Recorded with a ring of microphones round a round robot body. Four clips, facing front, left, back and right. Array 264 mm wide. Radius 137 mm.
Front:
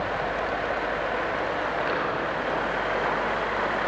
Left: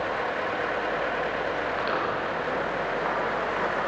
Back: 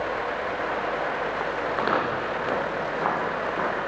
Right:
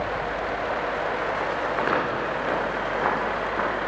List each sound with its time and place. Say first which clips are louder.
1.7 s footsteps: right 3 dB, back 2 dB; 140° right, 3.5 m; by 3.8 s 120° right, 3.5 m